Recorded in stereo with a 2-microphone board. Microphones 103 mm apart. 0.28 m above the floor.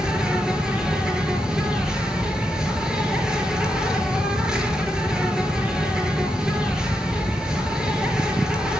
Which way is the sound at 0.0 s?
5° right (ahead or behind).